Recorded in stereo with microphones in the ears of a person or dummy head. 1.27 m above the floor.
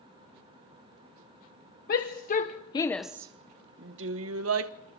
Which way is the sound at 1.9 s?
55° left (ahead or behind).